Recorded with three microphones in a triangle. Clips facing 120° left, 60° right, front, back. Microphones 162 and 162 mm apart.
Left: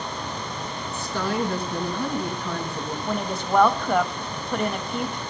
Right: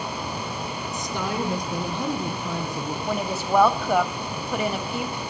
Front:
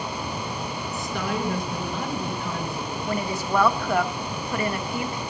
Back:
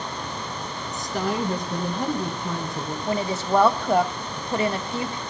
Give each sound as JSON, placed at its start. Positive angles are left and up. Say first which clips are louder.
{"t": 0.9, "sound": "a woman speaking", "louder": "left 2 dB, back 3 dB", "azimuth_deg": -130, "distance_m": 4.0}
{"t": 3.1, "sound": "a woman speaking", "louder": "right 1 dB, back 3 dB", "azimuth_deg": -140, "distance_m": 1.1}